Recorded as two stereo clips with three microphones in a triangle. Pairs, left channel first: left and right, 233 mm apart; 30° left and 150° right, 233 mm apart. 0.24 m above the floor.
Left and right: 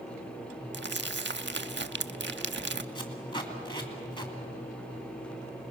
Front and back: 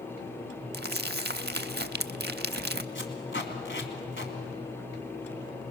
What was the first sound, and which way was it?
Crumpling, 115° right.